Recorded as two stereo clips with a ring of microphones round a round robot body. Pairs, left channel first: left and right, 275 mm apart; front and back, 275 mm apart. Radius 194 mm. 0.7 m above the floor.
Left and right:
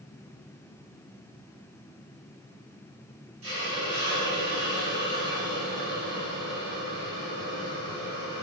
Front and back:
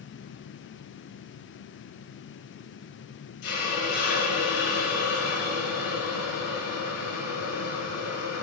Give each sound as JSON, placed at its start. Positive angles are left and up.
{"t": 3.4, "sound": "a hiss", "azimuth_deg": -30, "distance_m": 4.0}